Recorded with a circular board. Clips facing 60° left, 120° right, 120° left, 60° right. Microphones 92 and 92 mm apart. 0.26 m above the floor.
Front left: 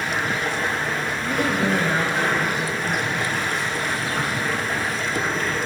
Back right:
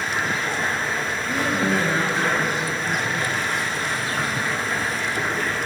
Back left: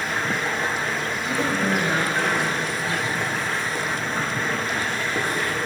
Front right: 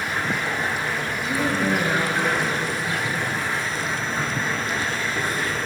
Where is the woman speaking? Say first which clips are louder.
Front left 1 dB, front right 1 dB; 45° left, 1.7 m.